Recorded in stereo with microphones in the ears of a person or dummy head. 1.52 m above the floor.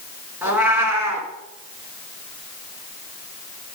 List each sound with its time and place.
0.4 s a cat meowing: 15° right (ahead or behind), 2.5 m